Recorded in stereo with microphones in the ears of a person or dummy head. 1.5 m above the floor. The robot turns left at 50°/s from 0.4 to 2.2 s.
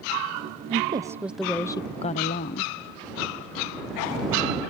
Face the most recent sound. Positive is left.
turn(degrees=140)